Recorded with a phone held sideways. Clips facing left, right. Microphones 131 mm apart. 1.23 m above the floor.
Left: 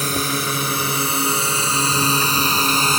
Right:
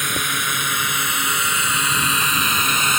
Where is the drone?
35° left (ahead or behind).